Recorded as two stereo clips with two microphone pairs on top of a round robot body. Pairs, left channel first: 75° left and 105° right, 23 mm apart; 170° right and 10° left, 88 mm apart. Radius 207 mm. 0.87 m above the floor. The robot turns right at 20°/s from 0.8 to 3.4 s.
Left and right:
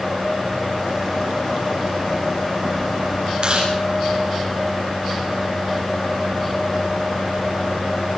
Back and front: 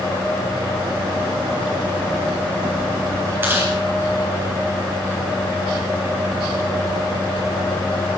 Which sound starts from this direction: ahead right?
Chewing, at 3.4 s.